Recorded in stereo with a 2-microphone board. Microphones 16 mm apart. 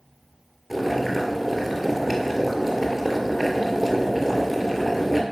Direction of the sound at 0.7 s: Centre (ahead or behind).